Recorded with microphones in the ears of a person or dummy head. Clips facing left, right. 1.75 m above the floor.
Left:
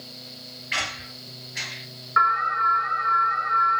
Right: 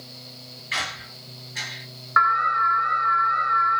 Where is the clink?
No clink in this recording.